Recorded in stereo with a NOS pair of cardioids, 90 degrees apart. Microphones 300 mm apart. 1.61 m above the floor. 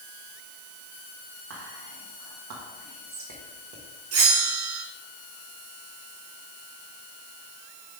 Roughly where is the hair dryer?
I don't hear a hair dryer.